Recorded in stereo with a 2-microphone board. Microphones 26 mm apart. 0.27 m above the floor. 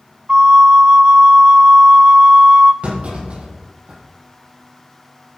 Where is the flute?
30° right (ahead or behind), 0.9 m.